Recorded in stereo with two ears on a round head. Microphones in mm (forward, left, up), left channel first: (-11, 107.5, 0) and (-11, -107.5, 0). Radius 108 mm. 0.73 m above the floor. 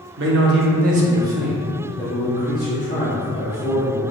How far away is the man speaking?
About 0.7 m.